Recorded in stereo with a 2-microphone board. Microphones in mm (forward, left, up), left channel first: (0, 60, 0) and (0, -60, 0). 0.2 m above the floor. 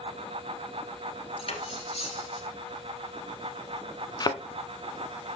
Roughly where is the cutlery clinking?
Left.